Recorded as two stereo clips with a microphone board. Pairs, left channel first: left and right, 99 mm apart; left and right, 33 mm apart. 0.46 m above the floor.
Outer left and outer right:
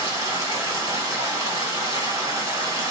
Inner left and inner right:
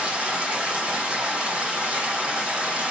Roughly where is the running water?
Right.